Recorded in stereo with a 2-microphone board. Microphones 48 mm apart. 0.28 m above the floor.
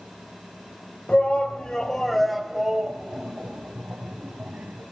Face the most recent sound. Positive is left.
turn(degrees=-40)  # may be behind; listen again after turning